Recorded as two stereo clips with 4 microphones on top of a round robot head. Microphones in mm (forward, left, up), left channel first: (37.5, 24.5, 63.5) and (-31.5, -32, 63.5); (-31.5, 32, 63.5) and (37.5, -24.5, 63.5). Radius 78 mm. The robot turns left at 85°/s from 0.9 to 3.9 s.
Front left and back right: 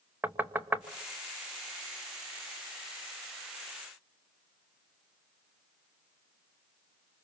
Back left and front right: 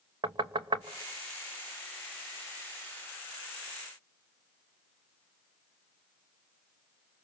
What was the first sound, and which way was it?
Knocking, 70° right.